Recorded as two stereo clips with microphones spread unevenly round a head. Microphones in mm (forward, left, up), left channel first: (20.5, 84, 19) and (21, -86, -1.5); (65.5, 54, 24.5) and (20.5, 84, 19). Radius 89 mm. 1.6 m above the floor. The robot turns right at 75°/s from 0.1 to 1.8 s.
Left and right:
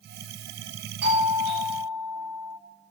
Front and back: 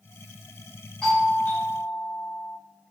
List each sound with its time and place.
1.0 s a doorbell: 120° right, 5 m; by 2.6 s 60° right, 5 m